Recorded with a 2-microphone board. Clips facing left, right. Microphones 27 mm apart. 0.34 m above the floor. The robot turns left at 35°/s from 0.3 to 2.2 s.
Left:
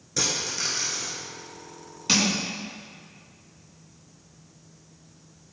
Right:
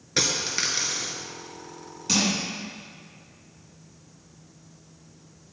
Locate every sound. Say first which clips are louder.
0.2 s a dropped coin: right 2 dB; 45° right (ahead or behind), 1.7 m; by 1.1 s 75° right (ahead or behind), 1.7 m
2.1 s crushing: left 1 dB; 30° left (ahead or behind), 4 m; by 2.3 s 35° left (ahead or behind), 4 m